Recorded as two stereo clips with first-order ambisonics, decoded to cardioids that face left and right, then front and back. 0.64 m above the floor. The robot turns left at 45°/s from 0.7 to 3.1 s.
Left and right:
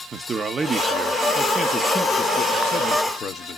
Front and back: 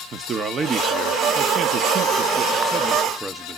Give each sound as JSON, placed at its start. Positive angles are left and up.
{"t": 0.1, "sound": "a man speaking", "azimuth_deg": -140, "distance_m": 0.6}